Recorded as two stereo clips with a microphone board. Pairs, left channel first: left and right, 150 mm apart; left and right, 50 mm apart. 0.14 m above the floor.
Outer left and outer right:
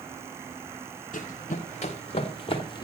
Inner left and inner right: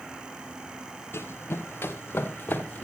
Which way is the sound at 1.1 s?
60° left (ahead or behind).